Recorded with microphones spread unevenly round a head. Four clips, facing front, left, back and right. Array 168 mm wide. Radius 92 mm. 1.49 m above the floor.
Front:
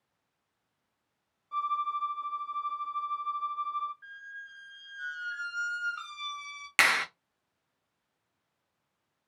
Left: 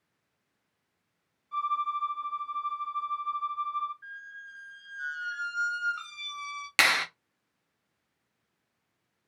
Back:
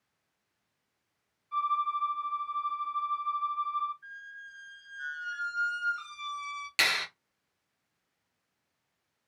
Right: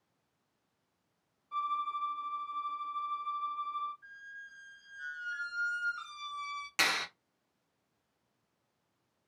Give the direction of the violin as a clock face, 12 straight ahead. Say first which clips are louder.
Left 5 dB, back 2 dB; 1 o'clock.